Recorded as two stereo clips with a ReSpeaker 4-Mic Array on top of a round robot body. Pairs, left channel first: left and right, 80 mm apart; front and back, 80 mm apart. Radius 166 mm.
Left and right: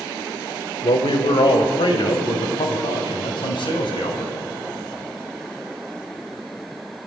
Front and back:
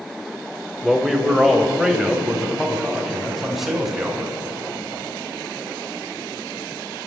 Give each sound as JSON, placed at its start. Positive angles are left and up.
{"t": 0.8, "sound": "a man speaking", "azimuth_deg": 90, "distance_m": 3.0}